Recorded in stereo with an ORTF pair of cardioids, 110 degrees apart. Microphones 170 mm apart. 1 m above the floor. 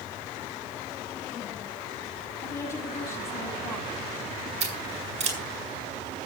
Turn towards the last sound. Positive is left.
turn(degrees=-40)